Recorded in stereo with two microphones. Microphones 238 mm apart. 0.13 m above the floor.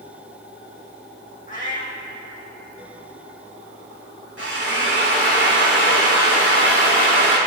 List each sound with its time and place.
1.5 s a cat meowing: 35° left (ahead or behind), 2 m
4.4 s a drill: 75° left (ahead or behind), 4 m